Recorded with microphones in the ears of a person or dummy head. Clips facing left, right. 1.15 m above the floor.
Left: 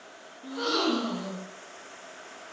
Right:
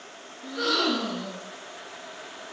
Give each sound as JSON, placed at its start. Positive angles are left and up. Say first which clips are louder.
{"t": 0.4, "sound": "a gasp", "louder": "right 1 dB", "side_deg": -5, "distance_m": 4.5}